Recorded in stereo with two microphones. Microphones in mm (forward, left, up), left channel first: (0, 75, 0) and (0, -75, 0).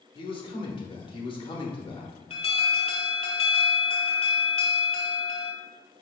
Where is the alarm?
40° left (ahead or behind), 0.7 m.